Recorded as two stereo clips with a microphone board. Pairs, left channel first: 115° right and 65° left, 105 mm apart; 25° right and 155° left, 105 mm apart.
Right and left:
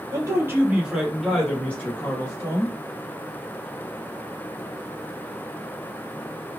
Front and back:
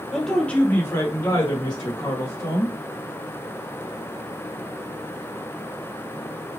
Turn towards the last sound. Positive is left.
turn(degrees=-55)